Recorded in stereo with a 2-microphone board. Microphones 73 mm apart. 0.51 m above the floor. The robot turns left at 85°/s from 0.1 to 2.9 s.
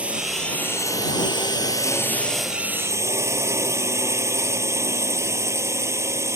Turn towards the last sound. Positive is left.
turn(degrees=-40)